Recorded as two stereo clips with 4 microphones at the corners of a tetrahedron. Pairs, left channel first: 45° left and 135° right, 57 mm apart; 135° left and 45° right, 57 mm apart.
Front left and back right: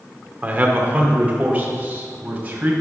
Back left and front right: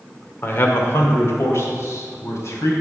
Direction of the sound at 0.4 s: 170° left.